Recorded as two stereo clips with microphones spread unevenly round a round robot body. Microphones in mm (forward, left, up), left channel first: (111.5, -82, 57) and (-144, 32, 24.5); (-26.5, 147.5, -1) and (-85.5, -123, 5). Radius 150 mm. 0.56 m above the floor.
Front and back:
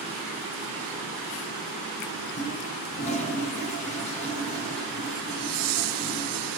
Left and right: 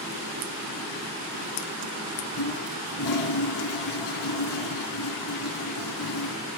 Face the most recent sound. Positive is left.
turn(degrees=45)